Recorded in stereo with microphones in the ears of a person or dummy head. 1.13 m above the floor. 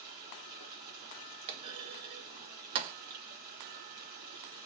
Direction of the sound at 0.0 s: 25° right (ahead or behind).